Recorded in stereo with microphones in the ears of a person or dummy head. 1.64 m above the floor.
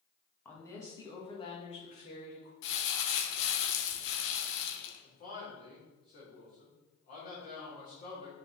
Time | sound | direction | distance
0.5 | a woman speaking | 10° left (ahead or behind) | 1.8 m
2.6 | crumpling | 65° left (ahead or behind) | 1.3 m
5.0 | a man speaking | 45° left (ahead or behind) | 3 m